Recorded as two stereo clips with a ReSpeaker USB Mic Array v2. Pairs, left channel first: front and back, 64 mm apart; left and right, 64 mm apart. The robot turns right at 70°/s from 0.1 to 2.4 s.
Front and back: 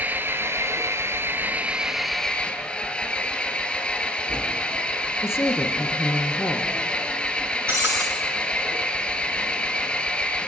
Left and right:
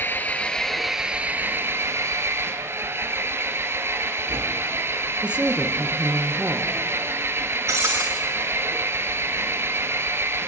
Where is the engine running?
130° left, 1.5 m; by 10.5 s 65° right, 1.5 m.